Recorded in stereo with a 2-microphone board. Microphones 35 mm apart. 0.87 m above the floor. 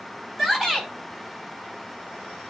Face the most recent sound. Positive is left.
turn(degrees=-5)  # may be behind; listen again after turning